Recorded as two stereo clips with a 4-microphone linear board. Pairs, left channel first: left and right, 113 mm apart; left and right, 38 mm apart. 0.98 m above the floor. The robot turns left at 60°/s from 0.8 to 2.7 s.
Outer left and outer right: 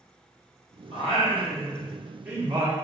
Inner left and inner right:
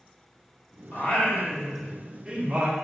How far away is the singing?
About 2.5 m.